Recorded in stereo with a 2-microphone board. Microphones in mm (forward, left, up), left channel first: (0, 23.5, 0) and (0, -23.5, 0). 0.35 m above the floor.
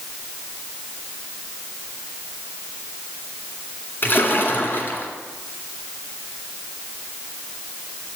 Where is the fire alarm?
No fire alarm in this recording.